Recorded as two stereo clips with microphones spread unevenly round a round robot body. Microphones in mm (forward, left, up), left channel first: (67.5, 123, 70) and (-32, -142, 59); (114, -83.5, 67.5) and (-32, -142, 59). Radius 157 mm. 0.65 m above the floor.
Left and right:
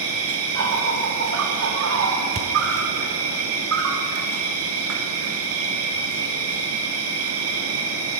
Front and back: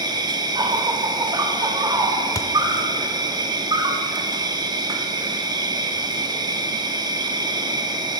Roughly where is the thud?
Ahead right.